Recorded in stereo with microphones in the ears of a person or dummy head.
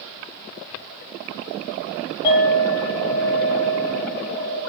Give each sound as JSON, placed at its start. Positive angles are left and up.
{"t": 2.2, "sound": "a clink", "side_deg": 30, "distance_m": 1.6}